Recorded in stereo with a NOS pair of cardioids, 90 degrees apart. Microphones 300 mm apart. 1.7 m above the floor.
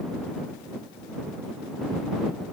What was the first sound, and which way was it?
Only background noise.